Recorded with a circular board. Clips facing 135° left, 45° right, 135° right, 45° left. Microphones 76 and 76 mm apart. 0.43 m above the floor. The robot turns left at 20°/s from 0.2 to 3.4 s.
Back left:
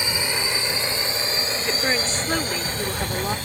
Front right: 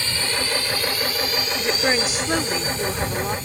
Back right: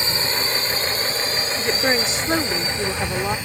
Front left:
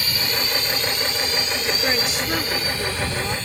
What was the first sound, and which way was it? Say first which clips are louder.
A drone: even, back right 2 dB; 170° right.